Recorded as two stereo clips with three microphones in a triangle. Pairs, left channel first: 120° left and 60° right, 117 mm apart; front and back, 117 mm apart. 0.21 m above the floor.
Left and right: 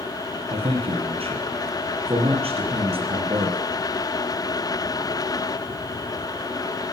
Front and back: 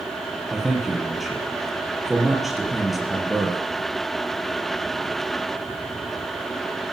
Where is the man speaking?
90° right, 4.5 m.